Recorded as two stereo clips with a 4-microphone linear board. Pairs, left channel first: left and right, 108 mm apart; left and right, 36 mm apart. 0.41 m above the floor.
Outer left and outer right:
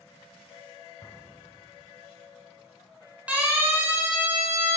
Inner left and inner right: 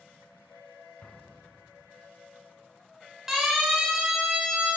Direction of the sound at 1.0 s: 25° left (ahead or behind).